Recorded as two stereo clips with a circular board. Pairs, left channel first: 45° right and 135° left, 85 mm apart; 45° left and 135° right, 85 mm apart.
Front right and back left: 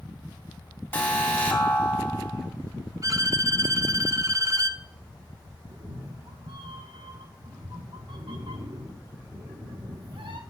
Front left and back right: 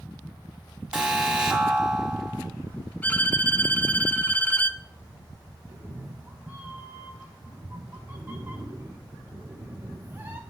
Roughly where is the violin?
Left.